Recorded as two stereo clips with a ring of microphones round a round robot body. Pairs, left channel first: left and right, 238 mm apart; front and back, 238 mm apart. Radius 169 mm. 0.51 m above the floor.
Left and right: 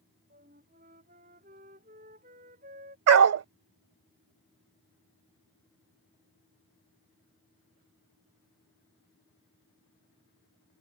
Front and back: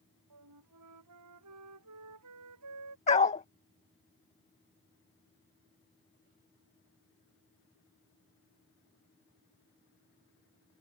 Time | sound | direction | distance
0.3 | a flute | 160° right | ?
3.1 | a dog barking | 70° right | ?